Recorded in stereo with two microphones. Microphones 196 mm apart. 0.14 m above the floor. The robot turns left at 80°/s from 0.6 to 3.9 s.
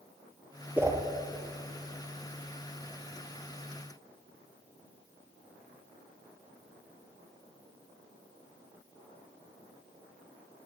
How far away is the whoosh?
About 1.6 m.